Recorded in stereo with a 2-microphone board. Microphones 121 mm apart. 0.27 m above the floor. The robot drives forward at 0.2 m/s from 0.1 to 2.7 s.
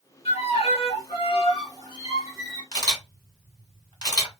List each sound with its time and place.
0.2 s a violin: 55° left (ahead or behind), 1.4 m; by 2.6 s 40° left (ahead or behind), 1.6 m
2.7 s a camera shutter: 35° left (ahead or behind), 1.5 m